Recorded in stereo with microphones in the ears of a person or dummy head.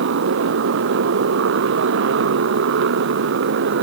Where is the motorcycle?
70° right (ahead or behind); by 3.8 s 65° right (ahead or behind).